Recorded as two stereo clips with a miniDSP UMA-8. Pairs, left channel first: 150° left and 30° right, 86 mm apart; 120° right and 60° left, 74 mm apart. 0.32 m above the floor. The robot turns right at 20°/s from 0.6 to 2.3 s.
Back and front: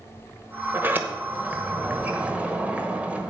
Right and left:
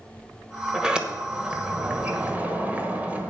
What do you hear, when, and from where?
0.7 s a sliding door: 10° right, 1.2 m; by 3.3 s 20° left, 1.2 m